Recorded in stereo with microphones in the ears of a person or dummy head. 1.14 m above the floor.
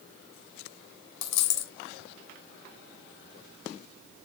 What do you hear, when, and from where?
1.2 s a dropped coin: 70° left (ahead or behind), 2.5 m